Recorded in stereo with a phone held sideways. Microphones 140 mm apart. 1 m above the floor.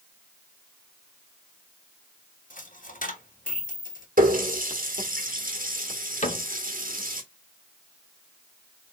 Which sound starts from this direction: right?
A running tap, at 4.2 s.